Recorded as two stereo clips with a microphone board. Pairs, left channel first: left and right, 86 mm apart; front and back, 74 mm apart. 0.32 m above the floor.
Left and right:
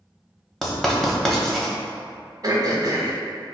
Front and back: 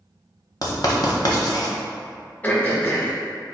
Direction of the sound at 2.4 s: 60° right.